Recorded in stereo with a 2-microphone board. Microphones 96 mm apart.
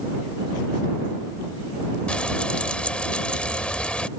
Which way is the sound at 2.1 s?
10° left (ahead or behind).